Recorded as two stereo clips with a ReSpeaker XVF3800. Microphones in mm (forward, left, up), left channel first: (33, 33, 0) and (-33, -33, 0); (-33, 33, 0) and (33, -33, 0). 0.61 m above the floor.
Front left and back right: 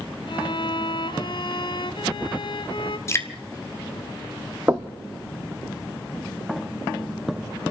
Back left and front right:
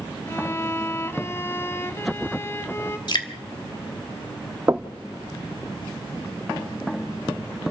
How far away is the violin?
About 1.3 m.